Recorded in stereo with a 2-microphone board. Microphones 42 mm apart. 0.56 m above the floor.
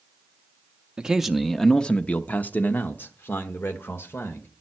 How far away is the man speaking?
About 0.8 m.